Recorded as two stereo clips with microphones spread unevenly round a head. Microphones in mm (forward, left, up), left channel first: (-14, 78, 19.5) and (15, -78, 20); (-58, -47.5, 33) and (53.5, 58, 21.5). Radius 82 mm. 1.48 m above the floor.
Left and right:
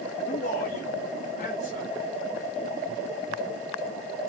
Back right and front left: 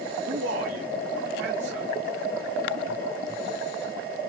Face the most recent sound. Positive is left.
turn(degrees=50)